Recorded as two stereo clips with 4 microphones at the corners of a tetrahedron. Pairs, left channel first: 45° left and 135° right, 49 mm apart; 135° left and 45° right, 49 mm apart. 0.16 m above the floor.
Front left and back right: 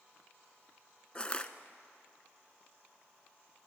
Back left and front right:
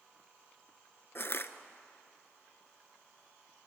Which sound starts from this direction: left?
Crushing, at 1.1 s.